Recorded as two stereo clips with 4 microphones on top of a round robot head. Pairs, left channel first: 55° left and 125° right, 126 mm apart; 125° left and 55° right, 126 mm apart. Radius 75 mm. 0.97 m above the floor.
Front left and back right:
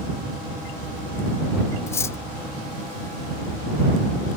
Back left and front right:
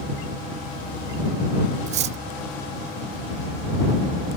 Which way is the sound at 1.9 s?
15° right.